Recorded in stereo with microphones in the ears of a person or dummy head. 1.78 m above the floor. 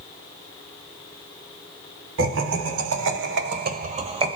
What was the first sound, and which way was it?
Laughter, 80° right.